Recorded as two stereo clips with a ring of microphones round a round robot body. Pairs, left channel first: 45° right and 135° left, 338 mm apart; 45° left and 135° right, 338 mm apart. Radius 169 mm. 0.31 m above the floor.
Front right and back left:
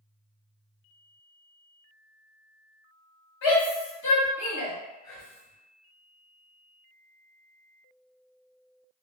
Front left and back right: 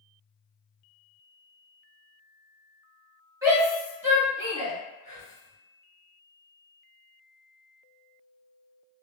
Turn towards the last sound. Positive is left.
turn(degrees=-75)